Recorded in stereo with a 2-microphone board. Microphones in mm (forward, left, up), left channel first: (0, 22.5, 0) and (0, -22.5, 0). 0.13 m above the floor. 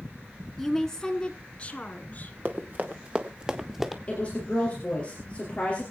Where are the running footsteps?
45° right (ahead or behind), 1.9 m; by 4.0 s 5° right (ahead or behind), 1.9 m.